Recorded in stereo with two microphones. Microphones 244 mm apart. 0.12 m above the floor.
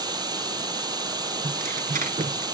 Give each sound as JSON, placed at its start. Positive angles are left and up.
{"t": 0.0, "sound": "running water", "side_deg": -15, "distance_m": 0.8}
{"t": 1.4, "sound": "tearing paper", "side_deg": -35, "distance_m": 0.7}